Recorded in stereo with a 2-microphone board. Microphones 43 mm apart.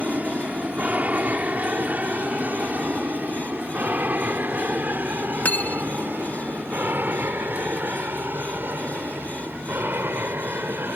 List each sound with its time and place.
0.0 s an aircraft: 30° right (ahead or behind); by 11.0 s 50° right (ahead or behind)
5.5 s cutlery clinking: 40° left (ahead or behind)